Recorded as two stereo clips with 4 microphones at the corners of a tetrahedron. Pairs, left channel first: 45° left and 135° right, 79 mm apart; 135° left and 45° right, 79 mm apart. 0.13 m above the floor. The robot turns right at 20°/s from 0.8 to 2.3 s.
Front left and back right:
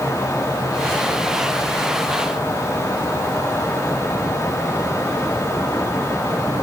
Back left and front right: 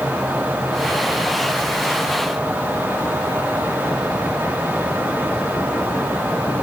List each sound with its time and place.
Only background noise.